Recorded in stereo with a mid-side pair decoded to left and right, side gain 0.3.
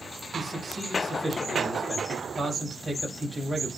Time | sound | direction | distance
0.3 | a man speaking | 30° right | 7 m